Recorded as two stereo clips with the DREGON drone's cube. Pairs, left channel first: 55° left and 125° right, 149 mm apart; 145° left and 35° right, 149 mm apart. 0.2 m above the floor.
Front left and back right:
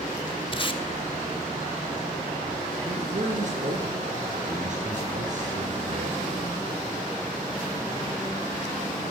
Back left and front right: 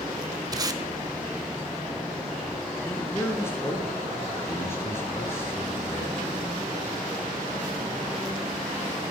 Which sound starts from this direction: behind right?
A man speaking, at 2.9 s.